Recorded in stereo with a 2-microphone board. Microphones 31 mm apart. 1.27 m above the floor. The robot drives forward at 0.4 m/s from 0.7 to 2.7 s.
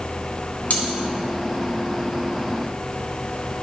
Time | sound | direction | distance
0.7 | cutlery clinking | 70° left (ahead or behind) | 1.6 m